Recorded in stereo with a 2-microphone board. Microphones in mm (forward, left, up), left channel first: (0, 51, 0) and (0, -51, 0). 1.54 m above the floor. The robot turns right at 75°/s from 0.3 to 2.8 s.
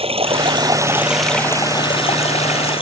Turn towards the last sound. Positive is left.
turn(degrees=120)